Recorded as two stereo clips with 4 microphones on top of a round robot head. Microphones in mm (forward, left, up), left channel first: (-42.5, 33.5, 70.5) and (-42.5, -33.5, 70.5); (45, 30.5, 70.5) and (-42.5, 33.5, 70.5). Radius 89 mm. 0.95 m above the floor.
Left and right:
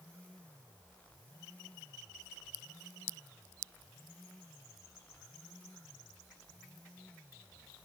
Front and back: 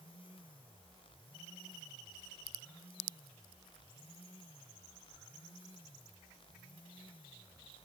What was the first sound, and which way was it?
Only background noise.